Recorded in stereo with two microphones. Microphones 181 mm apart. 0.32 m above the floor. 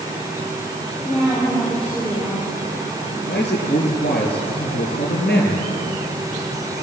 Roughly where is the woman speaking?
Centre.